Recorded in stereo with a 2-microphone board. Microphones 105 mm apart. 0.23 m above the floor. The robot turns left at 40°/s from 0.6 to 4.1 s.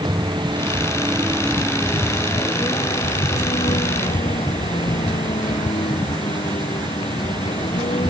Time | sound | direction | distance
0.0 | a vehicle | 135° right | ?